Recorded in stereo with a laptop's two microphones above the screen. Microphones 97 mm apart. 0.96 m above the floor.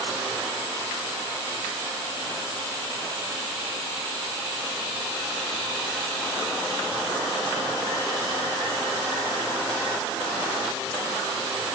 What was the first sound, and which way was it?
Only background noise.